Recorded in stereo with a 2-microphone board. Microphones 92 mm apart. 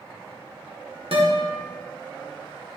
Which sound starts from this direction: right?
A guitar, at 1.1 s.